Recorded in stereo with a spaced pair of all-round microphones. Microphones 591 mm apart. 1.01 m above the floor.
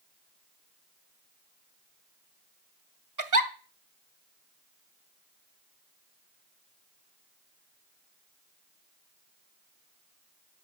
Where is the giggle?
30° right (ahead or behind), 1.1 m.